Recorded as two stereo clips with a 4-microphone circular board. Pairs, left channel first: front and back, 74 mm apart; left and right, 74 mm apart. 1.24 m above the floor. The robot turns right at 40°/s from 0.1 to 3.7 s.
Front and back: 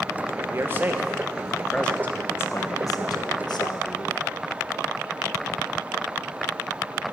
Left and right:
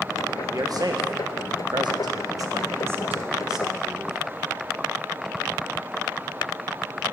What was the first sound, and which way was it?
A man speaking, 130° right.